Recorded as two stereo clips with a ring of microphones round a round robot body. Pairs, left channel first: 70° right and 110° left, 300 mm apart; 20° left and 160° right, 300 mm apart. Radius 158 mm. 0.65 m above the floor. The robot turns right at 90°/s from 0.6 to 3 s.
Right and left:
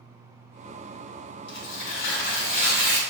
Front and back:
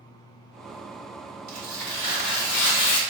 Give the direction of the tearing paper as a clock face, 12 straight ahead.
3 o'clock.